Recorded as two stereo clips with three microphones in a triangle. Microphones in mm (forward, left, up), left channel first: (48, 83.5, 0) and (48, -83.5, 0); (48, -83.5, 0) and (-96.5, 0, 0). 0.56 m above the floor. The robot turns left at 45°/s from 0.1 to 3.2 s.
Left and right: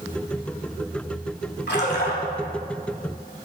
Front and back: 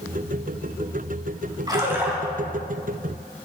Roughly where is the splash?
Left.